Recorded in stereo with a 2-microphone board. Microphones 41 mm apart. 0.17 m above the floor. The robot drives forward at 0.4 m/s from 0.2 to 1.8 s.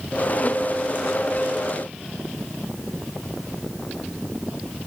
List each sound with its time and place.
Only background noise.